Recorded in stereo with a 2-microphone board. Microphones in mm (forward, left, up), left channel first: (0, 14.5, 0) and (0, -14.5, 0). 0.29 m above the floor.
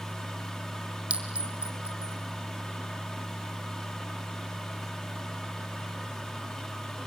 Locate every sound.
1.1 s a clink: 35° right (ahead or behind), 3 m